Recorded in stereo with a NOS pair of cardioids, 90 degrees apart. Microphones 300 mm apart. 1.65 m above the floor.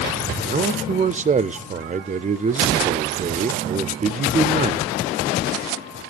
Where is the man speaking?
25° right, 0.6 m.